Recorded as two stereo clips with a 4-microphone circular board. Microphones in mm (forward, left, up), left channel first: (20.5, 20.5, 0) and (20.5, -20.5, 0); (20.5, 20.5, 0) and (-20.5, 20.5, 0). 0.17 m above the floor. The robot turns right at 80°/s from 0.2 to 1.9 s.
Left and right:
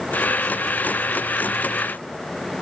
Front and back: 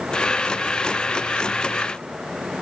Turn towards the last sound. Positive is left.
No sound to turn to.